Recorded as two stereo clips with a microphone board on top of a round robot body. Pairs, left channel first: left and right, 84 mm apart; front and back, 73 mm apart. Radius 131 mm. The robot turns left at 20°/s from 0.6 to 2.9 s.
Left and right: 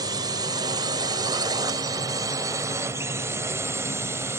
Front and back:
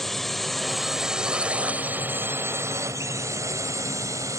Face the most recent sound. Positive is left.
turn(degrees=-145)